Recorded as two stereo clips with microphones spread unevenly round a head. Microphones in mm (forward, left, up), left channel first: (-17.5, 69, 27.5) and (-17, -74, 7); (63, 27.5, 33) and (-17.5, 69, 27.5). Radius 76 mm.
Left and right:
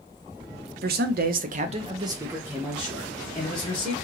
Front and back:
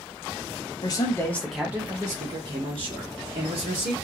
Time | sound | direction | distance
0.8 | a man speaking | 80° right | 0.6 m